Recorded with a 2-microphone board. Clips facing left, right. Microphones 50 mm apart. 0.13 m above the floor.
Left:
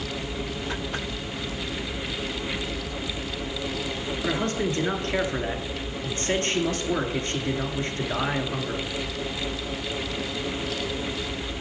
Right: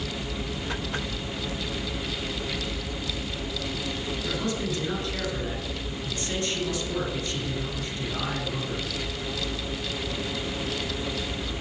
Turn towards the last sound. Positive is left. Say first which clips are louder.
# left 5 dB
turn(degrees=50)  # may be behind; listen again after turning